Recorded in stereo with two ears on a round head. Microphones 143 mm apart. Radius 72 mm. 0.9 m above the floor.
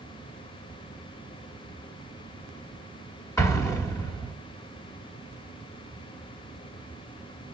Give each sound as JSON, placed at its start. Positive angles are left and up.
{"t": 3.4, "sound": "an explosion", "side_deg": 20, "distance_m": 1.4}